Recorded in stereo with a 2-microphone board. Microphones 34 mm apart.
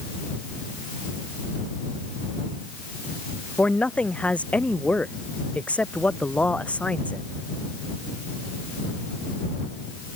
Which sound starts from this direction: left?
A man speaking, at 3.6 s.